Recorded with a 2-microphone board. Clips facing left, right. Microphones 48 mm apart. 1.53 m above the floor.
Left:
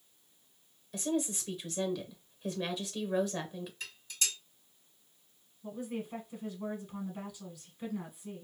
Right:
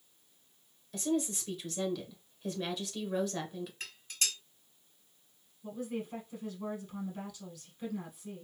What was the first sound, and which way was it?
A woman speaking, 5° left (ahead or behind).